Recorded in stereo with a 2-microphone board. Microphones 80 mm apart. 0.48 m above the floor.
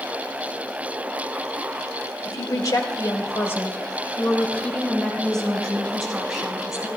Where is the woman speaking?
55° left (ahead or behind), 1.5 m; by 6.9 s 5° right (ahead or behind), 3.5 m.